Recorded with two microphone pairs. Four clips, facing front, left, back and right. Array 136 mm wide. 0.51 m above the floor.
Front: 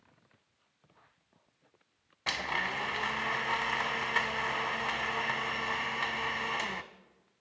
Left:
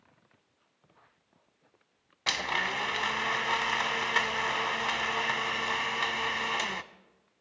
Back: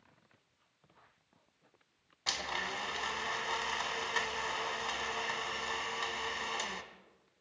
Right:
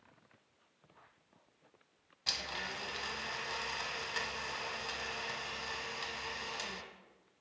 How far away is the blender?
About 0.6 m.